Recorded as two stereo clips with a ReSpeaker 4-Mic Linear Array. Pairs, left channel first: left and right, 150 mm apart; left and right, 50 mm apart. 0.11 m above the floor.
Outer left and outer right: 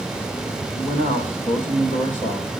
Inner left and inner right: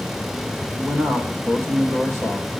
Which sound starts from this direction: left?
A man speaking, at 0.8 s.